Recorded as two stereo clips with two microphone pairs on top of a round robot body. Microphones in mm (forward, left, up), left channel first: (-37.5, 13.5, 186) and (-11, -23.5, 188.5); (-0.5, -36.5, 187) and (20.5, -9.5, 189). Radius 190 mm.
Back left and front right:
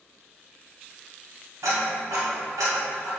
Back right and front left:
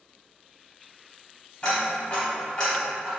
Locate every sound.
1.6 s ticking: 65° right, 0.6 m